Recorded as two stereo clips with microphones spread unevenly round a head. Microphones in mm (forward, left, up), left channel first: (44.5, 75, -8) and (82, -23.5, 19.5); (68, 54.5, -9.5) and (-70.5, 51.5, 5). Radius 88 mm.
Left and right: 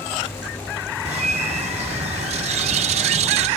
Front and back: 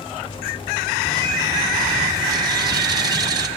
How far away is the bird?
About 1.0 m.